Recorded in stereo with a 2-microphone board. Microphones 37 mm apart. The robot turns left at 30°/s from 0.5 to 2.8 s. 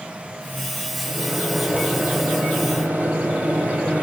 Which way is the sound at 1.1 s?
20° right.